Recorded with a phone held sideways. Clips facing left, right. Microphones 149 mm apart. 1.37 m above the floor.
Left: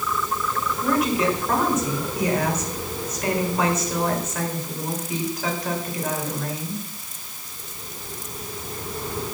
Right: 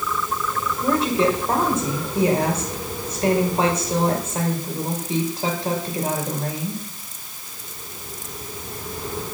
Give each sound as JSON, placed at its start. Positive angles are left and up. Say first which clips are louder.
{"t": 0.8, "sound": "a woman speaking", "louder": "right 2 dB", "side_deg": -30, "distance_m": 5.5}